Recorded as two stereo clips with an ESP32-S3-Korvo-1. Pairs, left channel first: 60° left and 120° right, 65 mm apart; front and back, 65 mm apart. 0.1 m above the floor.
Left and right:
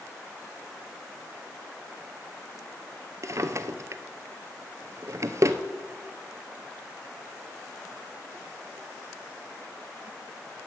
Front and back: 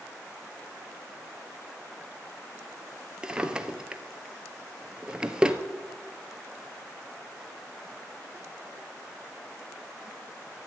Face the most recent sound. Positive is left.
turn(degrees=-110)